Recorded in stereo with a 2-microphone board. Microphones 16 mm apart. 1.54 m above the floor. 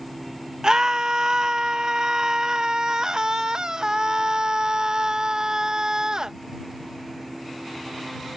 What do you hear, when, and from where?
0.6 s a scream: 45° right (ahead or behind)